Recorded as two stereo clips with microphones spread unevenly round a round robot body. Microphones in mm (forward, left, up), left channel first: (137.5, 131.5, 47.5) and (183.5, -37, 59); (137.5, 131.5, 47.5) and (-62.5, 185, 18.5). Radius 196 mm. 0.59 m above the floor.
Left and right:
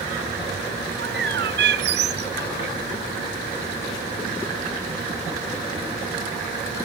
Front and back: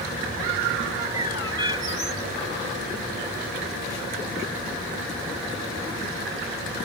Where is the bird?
115° right.